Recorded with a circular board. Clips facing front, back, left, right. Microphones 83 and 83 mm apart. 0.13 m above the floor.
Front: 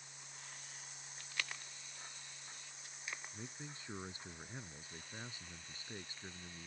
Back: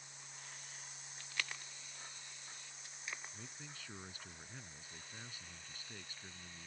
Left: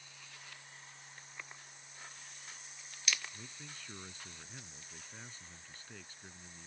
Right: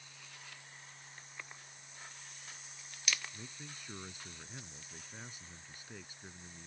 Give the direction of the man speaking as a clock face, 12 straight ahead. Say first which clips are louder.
Front 3 dB, right 1 dB; 1 o'clock.